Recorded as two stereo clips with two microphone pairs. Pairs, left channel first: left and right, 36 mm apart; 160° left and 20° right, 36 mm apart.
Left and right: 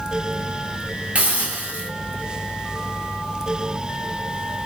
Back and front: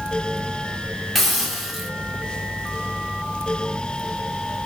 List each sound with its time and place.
1.1 s a hiss: 110° right, 1.2 m